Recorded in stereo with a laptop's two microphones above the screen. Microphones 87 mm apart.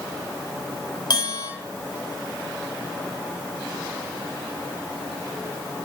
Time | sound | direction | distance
1.1 | a bell | 55° left (ahead or behind) | 3.5 m